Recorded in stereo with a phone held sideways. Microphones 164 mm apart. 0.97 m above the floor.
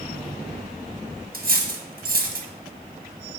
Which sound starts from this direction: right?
Cutlery clinking, at 1.3 s.